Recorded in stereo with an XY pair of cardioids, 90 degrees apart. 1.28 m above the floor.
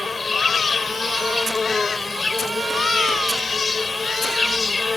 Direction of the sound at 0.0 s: 30° left.